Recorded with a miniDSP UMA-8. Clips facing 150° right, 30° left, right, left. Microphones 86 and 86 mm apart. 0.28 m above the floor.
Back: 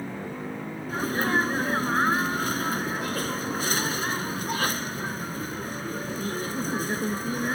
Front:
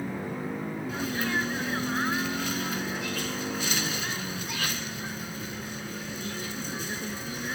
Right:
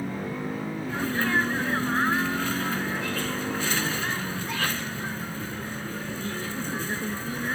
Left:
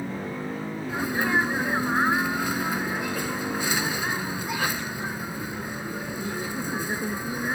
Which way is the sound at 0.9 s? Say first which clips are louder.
Back 6 dB, left 1 dB; 165° left.